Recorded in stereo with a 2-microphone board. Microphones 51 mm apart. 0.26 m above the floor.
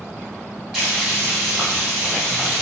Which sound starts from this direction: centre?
Frying, at 0.7 s.